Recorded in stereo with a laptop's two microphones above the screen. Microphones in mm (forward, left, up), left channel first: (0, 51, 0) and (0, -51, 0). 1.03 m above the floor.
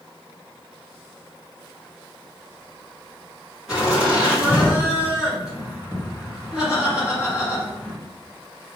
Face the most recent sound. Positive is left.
turn(degrees=-5)  # may be behind; listen again after turning